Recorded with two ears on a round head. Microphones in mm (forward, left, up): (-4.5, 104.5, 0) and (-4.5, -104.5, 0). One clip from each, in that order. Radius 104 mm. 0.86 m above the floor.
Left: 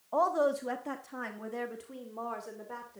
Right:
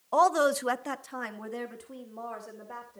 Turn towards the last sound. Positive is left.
turn(degrees=5)  # may be behind; listen again after turning